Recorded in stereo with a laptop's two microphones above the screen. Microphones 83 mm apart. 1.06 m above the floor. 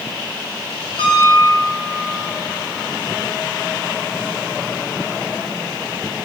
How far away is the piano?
About 8.5 m.